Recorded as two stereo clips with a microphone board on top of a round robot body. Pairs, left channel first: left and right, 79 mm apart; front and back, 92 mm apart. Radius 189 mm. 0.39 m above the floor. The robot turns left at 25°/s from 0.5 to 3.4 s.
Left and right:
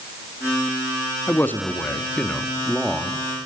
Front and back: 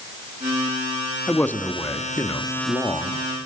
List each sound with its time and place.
1.3 s a man speaking: 55° left, 1.6 m; by 3.3 s 5° left, 1.6 m